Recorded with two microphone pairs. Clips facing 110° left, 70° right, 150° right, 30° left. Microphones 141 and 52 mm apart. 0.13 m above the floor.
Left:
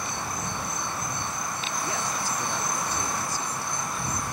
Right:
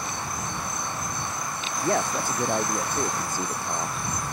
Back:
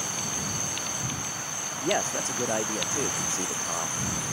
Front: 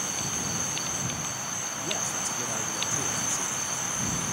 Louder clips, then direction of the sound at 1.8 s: Right 9 dB, back 8 dB; 105° right.